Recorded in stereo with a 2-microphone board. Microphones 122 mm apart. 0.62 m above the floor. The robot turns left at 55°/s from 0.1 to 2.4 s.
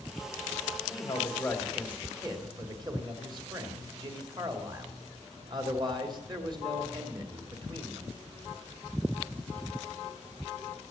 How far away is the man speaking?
About 2.5 m.